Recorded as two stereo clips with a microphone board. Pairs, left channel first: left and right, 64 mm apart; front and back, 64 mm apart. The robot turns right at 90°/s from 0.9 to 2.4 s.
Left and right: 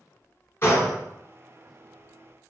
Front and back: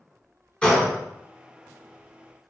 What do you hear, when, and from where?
0.6 s a gunshot: 70° left, 0.7 m; by 1.0 s 75° left, 0.7 m